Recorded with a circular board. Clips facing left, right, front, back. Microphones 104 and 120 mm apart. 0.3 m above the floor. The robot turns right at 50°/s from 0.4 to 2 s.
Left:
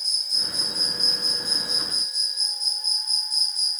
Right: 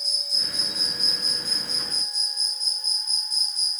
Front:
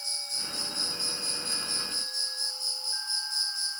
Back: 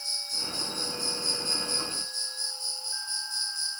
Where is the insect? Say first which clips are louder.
Right 1 dB, back 3 dB; 90° left, 2.5 m; by 3.8 s 170° left, 2.5 m.